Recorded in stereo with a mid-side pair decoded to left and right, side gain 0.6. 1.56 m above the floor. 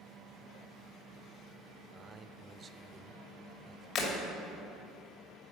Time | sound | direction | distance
1.9 | a man speaking | 35° right | 0.6 m
4.0 | breaking glass | 55° left | 2.5 m